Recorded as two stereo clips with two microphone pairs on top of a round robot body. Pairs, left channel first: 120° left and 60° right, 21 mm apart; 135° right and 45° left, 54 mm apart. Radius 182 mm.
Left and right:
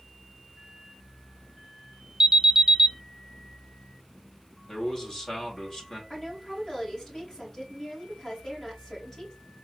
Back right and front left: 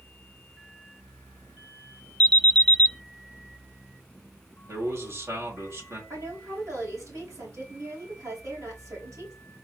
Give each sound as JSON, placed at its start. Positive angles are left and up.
{"t": 2.2, "sound": "an alarm", "azimuth_deg": -85, "distance_m": 0.6}
{"t": 4.7, "sound": "a man speaking", "azimuth_deg": 70, "distance_m": 2.0}
{"t": 6.1, "sound": "a woman speaking", "azimuth_deg": 65, "distance_m": 3.0}